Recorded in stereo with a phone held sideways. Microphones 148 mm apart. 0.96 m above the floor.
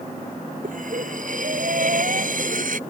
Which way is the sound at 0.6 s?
65° right (ahead or behind).